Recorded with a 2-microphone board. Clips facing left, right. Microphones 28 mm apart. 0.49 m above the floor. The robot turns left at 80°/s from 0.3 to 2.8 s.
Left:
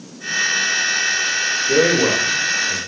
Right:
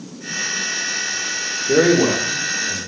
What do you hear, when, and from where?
1.7 s a man speaking: 25° right (ahead or behind), 0.9 m; by 2.8 s centre (ahead or behind), 0.9 m